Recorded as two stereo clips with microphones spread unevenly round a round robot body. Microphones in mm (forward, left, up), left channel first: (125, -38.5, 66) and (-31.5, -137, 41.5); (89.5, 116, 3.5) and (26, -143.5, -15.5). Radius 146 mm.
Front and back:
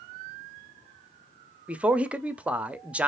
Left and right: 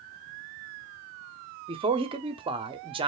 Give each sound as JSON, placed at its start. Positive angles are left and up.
{"t": 1.7, "sound": "a man speaking", "azimuth_deg": -95, "distance_m": 0.7}